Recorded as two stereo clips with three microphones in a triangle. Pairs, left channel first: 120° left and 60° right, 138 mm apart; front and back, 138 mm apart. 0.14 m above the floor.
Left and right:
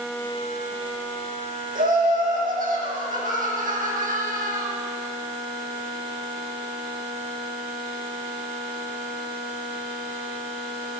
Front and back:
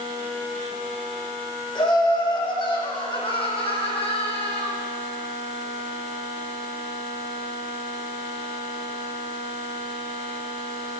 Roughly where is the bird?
No bird in this recording.